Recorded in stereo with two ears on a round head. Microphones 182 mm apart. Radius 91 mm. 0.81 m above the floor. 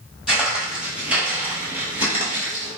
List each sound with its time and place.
0.3 s footsteps: 5° right (ahead or behind), 1.1 m; by 2.7 s 10° right (ahead or behind), 1.2 m